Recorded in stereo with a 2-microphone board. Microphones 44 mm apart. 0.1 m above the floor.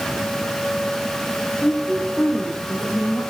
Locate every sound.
1.6 s a woman speaking: 70° left (ahead or behind), 6 m